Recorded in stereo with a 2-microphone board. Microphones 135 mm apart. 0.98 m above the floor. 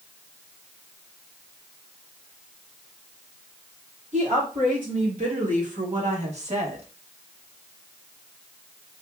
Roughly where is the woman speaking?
Right.